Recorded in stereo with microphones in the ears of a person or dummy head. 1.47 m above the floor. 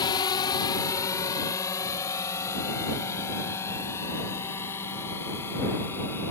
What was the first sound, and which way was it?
A drone, 25° left (ahead or behind).